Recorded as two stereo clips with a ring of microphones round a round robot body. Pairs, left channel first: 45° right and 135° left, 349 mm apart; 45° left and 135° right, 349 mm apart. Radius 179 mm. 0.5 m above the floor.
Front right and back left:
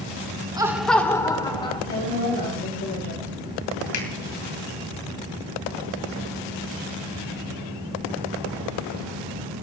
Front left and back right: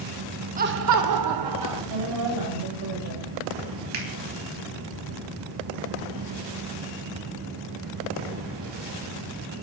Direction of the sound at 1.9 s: 105° right.